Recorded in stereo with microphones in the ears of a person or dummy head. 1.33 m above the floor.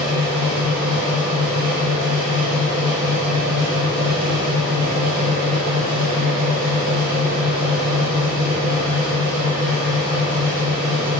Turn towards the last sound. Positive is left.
turn(degrees=-45)  # may be behind; listen again after turning